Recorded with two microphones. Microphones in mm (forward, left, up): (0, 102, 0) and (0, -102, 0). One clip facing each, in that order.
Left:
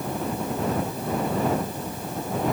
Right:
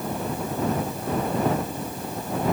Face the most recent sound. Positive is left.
No sound to turn to.